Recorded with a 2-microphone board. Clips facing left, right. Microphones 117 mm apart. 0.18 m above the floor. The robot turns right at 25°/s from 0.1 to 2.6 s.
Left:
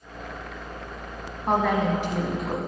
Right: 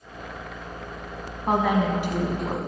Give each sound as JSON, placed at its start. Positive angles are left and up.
{"t": 1.5, "sound": "a woman speaking", "side_deg": -5, "distance_m": 1.1}